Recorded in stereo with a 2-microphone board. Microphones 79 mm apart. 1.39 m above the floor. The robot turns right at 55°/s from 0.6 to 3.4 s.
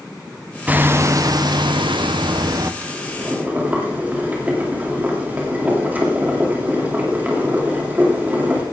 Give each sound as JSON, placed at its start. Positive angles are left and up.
{"t": 0.7, "sound": "hammering", "azimuth_deg": -160, "distance_m": 0.6}
{"t": 2.8, "sound": "boiling", "azimuth_deg": -55, "distance_m": 3.0}